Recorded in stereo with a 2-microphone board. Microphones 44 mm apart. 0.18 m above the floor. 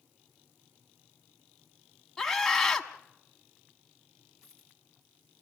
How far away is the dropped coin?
About 5.5 m.